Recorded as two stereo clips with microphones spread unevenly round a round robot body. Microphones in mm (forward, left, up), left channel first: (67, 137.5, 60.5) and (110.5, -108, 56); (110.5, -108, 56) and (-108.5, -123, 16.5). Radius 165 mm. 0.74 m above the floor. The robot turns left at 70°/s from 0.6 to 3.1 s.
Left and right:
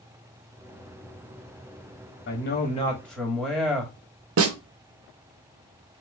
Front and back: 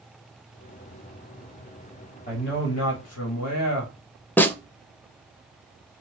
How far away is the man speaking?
About 1.4 m.